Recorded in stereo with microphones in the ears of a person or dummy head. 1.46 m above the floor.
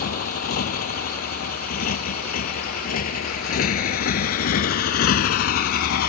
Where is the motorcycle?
55° left (ahead or behind).